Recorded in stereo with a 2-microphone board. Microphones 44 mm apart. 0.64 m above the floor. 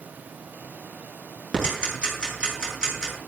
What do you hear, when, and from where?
1.5 s ticking: 15° right (ahead or behind), 7 m